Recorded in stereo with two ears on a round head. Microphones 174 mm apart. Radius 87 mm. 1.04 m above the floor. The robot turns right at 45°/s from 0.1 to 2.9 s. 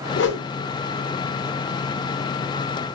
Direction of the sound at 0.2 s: 65° left (ahead or behind).